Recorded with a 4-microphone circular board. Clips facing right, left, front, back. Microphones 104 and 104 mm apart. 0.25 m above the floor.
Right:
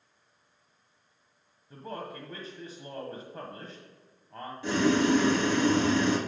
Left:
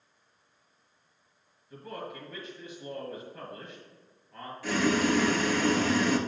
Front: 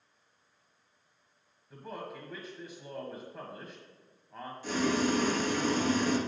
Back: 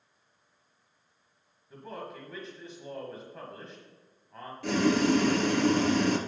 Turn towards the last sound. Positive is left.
turn(degrees=-155)